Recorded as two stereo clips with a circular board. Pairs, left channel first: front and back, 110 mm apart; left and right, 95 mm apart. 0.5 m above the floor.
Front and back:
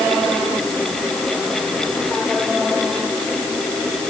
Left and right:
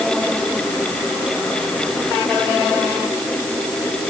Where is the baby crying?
No baby crying in this recording.